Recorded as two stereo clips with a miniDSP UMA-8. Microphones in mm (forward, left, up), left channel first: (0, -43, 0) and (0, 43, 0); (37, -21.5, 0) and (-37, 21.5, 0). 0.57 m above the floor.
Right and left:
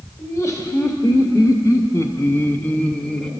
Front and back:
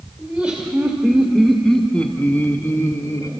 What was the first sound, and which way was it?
Laughter, 135° right.